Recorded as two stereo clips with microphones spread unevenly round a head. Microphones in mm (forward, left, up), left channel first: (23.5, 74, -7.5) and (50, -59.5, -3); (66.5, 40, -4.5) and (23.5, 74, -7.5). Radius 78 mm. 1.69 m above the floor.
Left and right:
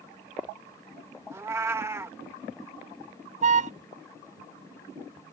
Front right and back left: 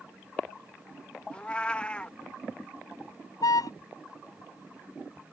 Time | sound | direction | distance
1.3 | a cat meowing | 40° right | ?
3.4 | a car horn | 45° right | ?